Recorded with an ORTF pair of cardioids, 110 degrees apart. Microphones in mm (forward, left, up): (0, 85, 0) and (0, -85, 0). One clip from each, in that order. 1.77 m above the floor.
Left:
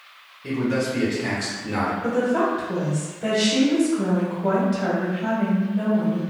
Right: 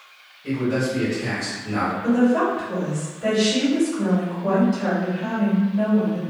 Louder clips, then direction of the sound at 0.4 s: Right 1 dB; 25° left.